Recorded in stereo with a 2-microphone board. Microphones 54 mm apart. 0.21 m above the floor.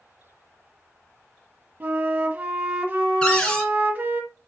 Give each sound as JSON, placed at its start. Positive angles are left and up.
{"t": 1.8, "sound": "a flute", "side_deg": -35, "distance_m": 1.3}
{"t": 3.2, "sound": "a cupboard door", "side_deg": 15, "distance_m": 1.8}